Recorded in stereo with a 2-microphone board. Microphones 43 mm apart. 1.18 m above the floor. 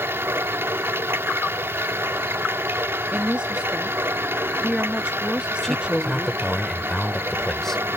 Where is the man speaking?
10° left (ahead or behind).